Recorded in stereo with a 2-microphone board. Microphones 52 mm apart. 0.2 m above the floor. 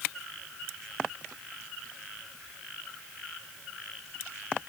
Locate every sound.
Only background noise.